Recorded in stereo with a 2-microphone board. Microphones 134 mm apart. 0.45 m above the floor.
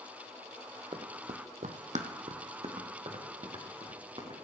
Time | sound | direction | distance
0.9 | running footsteps | 40° right (ahead or behind) | 1.0 m